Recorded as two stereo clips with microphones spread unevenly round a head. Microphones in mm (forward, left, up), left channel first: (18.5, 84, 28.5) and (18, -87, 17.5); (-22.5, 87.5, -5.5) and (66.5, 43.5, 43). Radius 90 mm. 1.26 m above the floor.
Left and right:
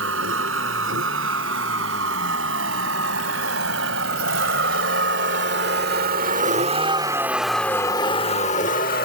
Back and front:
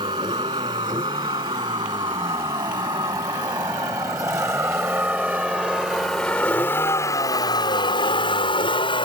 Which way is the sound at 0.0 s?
80° right.